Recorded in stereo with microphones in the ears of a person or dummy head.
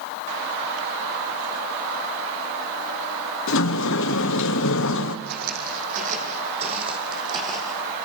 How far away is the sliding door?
About 1.1 m.